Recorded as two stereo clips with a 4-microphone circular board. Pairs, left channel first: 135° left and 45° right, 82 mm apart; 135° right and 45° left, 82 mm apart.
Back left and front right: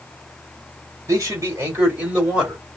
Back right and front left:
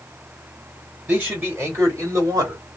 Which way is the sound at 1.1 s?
15° right.